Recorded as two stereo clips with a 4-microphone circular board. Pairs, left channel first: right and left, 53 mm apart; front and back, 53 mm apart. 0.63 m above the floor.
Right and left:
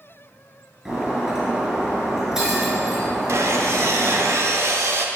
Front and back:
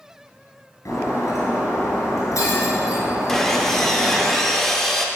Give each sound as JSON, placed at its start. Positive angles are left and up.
{"t": 0.8, "sound": "breaking glass", "azimuth_deg": 10, "distance_m": 4.0}
{"t": 3.3, "sound": "sawing", "azimuth_deg": 80, "distance_m": 1.0}